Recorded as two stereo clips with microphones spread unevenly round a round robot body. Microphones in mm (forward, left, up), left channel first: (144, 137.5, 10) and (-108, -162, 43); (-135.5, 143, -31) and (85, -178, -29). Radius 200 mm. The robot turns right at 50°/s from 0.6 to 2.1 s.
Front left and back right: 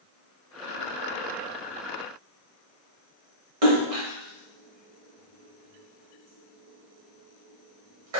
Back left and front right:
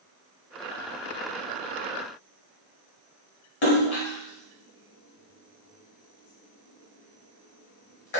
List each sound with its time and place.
3.6 s a splash: straight behind, 1.0 m